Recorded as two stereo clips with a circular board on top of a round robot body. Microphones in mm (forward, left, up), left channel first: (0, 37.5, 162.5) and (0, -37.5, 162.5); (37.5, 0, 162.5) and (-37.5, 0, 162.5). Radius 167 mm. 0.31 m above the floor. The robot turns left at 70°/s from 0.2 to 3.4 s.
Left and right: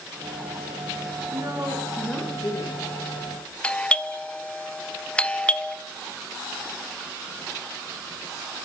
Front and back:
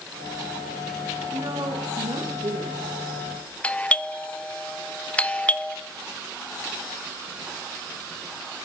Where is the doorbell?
40° left, 1.3 m.